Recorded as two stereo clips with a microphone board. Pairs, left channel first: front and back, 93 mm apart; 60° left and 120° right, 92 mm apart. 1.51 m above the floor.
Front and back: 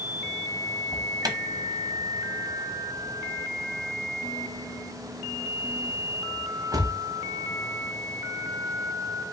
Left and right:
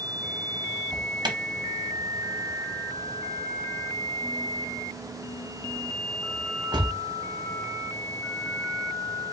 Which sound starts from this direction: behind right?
An alarm, at 0.9 s.